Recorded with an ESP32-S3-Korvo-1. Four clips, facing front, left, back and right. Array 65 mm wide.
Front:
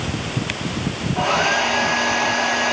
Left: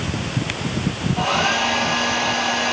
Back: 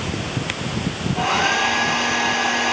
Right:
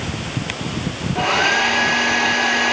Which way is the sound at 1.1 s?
90° right.